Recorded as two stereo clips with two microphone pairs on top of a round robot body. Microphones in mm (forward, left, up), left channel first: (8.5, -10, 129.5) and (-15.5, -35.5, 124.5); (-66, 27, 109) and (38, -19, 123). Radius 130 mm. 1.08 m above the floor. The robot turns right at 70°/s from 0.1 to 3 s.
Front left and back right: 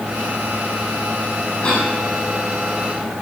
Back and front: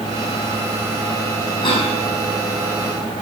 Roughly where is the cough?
Left.